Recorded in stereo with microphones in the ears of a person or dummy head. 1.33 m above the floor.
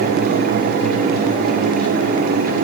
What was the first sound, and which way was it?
Only background noise.